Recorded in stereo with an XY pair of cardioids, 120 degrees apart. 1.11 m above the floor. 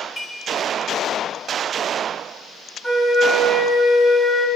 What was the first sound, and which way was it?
Dishes clattering, 15° left.